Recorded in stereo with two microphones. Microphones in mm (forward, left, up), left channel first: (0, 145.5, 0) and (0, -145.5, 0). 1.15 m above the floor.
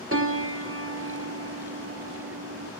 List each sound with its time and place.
0.1 s a piano: 50° right (ahead or behind), 0.9 m